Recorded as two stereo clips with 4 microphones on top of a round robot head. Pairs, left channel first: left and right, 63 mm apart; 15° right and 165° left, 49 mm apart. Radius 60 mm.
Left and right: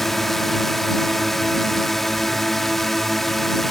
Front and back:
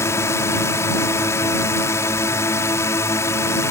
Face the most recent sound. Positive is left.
turn(degrees=5)